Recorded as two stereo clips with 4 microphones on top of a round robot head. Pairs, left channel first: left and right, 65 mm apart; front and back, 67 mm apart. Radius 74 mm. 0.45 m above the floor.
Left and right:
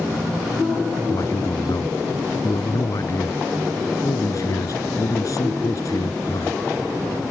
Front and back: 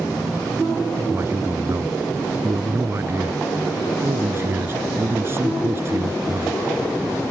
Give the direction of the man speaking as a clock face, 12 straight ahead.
8 o'clock.